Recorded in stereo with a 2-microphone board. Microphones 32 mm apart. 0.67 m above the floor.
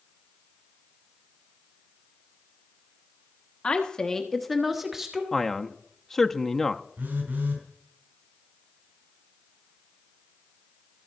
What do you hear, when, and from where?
3.6 s a woman speaking: 35° left (ahead or behind), 1.4 m; by 5.2 s 20° right (ahead or behind), 1.6 m
5.3 s a man speaking: 15° left (ahead or behind), 0.6 m
7.0 s a phone buzzing: 85° right, 4.5 m